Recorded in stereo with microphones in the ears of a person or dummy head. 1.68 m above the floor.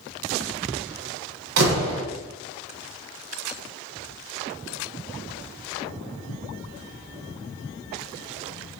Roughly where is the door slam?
Right.